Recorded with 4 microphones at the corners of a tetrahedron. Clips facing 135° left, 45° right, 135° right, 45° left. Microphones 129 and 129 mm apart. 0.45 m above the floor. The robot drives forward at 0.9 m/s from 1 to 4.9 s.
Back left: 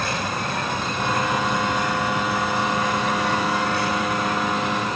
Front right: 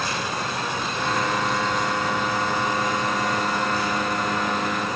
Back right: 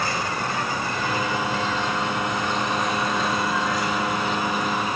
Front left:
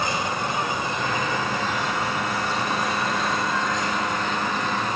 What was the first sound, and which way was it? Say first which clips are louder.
An insect: back left 1 dB, front left 1 dB; 115° left.